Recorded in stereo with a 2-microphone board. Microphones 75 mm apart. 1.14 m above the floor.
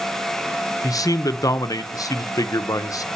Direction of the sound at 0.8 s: 45° left (ahead or behind).